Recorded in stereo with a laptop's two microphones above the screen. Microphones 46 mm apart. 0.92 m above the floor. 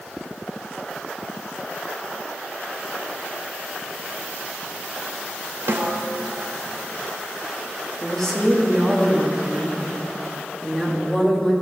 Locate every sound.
5.7 s a snare drum: 50° right (ahead or behind), 0.7 m
8.0 s a woman speaking: 10° left (ahead or behind), 1.2 m